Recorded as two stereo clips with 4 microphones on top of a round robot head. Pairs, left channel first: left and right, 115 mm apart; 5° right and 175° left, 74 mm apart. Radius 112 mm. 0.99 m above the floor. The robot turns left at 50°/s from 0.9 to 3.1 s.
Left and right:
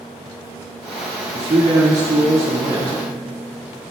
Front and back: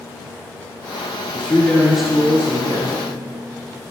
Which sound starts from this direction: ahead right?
A man speaking, at 1.3 s.